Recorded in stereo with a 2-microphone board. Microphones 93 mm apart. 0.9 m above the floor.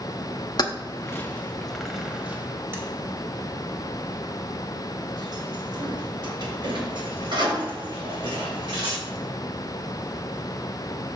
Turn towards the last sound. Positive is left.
turn(degrees=-60)  # may be behind; listen again after turning